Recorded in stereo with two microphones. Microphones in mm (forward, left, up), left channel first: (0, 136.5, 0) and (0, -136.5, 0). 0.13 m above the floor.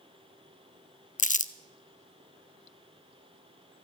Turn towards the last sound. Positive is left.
turn(degrees=30)  # may be behind; listen again after turning